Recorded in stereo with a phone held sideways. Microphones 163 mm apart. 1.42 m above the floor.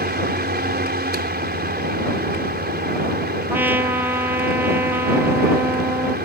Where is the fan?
85° right.